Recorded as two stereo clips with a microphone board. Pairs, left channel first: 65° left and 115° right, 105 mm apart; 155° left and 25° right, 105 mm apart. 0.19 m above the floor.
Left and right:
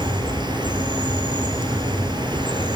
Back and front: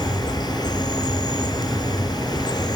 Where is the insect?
155° right, 2.5 m.